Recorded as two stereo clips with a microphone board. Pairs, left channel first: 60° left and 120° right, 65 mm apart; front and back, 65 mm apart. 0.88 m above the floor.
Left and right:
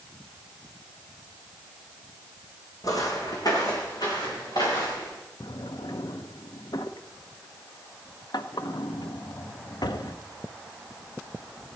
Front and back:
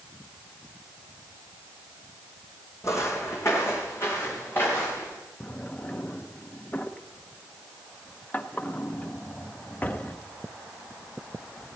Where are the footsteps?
40° left, 2.0 m; by 5.1 s 55° left, 4 m.